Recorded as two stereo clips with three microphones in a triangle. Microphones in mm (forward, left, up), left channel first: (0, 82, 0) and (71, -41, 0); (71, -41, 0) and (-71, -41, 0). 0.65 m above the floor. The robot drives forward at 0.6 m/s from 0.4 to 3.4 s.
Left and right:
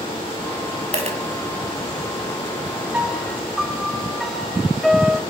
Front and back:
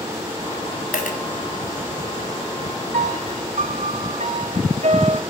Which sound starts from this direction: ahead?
A dropped coin, at 0.9 s.